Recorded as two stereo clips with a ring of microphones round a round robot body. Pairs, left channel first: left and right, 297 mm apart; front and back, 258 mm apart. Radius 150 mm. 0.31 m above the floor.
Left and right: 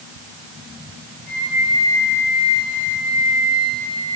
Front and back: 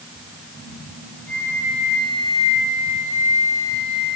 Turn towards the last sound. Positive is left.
turn(degrees=-70)